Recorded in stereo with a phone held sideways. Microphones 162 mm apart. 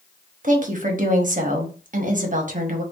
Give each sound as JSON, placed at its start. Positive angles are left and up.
{"t": 0.4, "sound": "a woman speaking", "side_deg": -55, "distance_m": 0.9}